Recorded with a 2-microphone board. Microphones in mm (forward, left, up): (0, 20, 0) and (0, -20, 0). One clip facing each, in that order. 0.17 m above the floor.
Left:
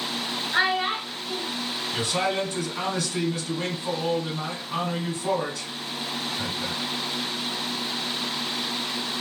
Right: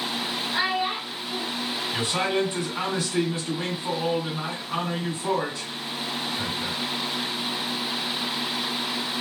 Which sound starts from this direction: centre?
A man speaking, at 1.9 s.